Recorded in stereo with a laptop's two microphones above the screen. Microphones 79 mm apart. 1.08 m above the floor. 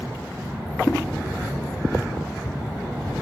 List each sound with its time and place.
0.9 s a whoosh: centre (ahead or behind), 1.5 m